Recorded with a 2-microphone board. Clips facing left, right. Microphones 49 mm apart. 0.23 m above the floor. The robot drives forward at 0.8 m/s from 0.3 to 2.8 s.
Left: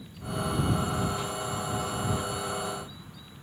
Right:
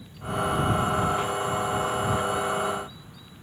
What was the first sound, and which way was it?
Only background noise.